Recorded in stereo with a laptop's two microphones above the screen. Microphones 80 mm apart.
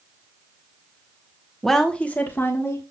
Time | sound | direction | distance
1.6 | a woman speaking | centre (ahead or behind) | 1.1 m